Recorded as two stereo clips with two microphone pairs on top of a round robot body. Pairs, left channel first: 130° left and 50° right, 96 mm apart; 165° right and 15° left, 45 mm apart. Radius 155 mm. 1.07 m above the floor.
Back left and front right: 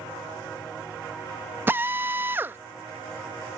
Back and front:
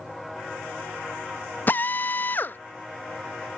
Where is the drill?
120° right.